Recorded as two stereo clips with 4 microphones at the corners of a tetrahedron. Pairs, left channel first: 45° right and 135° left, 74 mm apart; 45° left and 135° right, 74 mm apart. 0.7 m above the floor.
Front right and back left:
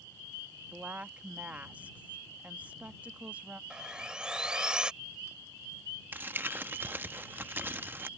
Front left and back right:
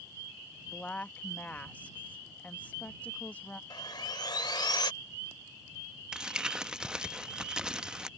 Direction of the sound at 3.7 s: 55° left.